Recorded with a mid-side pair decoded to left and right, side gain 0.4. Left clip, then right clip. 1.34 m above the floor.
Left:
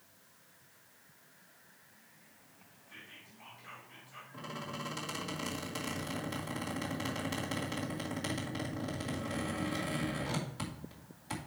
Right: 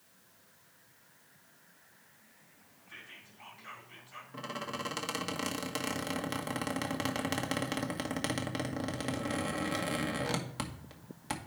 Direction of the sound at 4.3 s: 65° right.